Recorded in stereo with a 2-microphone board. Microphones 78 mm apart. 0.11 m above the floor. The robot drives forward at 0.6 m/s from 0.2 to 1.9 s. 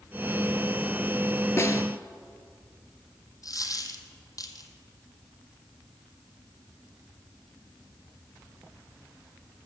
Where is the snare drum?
40° left (ahead or behind), 0.9 m.